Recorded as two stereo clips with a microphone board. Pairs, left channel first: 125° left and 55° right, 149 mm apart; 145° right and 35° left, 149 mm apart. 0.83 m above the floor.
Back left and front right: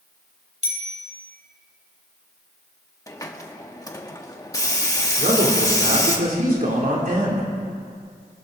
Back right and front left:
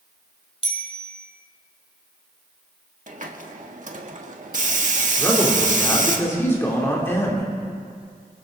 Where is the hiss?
60° left, 1.3 m.